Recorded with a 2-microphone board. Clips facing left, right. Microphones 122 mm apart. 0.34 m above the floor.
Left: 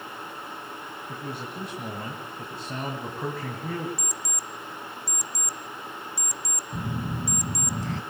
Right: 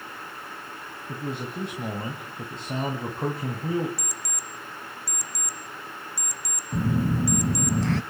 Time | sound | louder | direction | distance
1.1 | a man speaking | right 5 dB | 20° right (ahead or behind) | 2.5 m
4.0 | an alarm clock | left 1 dB | 20° left (ahead or behind) | 0.8 m
6.7 | a phone buzzing | right 8 dB | 80° right | 0.6 m